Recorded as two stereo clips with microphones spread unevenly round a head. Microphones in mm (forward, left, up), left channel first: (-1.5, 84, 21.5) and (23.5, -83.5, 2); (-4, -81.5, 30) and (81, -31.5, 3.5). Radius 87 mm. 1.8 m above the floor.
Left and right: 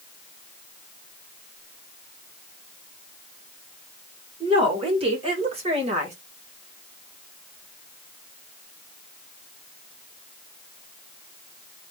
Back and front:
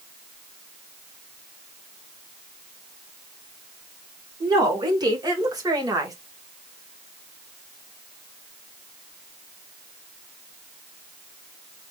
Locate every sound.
4.4 s a woman speaking: 20° right, 2.5 m; by 6.2 s 30° right, 1.7 m